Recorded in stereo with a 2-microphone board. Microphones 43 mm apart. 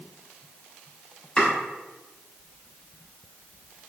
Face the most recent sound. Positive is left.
turn(degrees=20)  # may be behind; listen again after turning